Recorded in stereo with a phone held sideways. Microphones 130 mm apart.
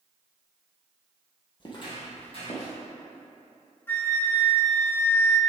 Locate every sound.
1.6 s footsteps: 35° left (ahead or behind), 1.8 m; by 2.7 s 55° left (ahead or behind), 3 m
3.9 s a flute: 15° left (ahead or behind), 1.1 m